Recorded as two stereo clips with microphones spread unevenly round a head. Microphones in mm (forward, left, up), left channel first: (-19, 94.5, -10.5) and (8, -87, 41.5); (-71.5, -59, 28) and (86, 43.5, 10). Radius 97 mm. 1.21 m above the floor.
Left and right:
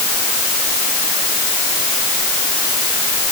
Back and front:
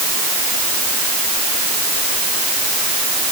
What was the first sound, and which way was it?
Only background noise.